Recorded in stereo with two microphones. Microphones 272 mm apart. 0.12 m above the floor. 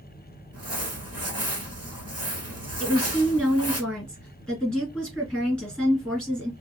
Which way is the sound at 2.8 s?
5° left (ahead or behind).